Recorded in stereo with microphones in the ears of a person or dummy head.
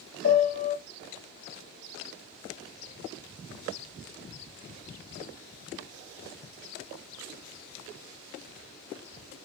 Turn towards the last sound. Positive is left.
turn(degrees=65)  # may be behind; listen again after turning